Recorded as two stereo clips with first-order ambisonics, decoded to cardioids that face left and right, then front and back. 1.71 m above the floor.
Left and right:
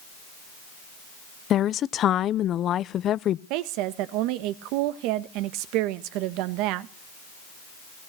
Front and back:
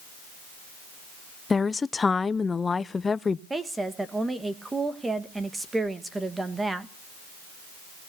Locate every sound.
1.5 s a woman speaking: 65° left, 0.6 m
3.5 s a woman speaking: 100° right, 1.5 m